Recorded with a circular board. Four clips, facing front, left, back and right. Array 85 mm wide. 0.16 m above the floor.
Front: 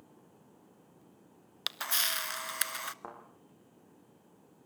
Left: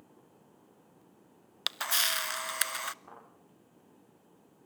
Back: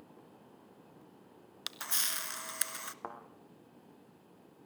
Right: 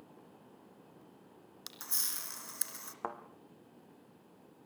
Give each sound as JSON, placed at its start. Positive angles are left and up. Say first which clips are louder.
{"t": 1.7, "sound": "a camera shutter", "louder": "left 16 dB, front 6 dB", "azimuth_deg": 70, "distance_m": 0.5}
{"t": 3.0, "sound": "a thud", "louder": "right 11 dB, back 2 dB", "azimuth_deg": -100, "distance_m": 3.0}